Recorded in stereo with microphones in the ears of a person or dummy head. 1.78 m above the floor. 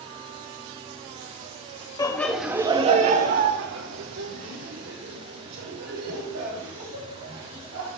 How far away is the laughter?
About 1.0 m.